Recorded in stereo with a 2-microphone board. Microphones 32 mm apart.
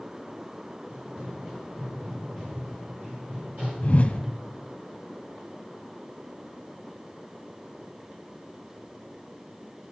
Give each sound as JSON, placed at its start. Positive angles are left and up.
{"t": 0.9, "sound": "running footsteps", "side_deg": -50, "distance_m": 8.0}
{"t": 3.8, "sound": "a whoosh", "side_deg": 45, "distance_m": 1.2}